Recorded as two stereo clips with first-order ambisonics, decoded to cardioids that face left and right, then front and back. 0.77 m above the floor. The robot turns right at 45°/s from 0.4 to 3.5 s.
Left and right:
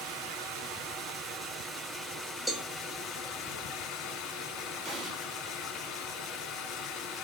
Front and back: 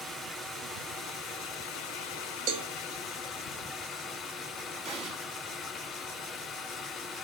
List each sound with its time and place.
0.0 s running water: 80° right, 1.2 m; by 7.2 s 60° left, 1.2 m
2.5 s a cowbell: 175° right, 0.5 m; by 2.7 s 165° right, 0.5 m
4.8 s an explosion: 140° right, 1.4 m